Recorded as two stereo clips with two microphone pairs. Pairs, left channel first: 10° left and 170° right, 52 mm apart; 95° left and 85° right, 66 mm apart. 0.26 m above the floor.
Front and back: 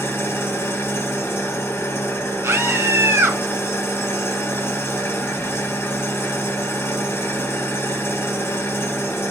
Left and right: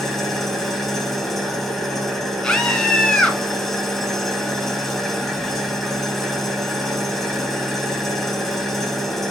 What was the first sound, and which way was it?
An engine running, 10° left.